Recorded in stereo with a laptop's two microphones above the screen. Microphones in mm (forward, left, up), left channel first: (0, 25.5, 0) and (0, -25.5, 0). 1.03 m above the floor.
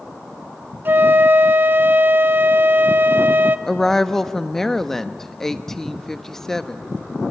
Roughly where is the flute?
Right.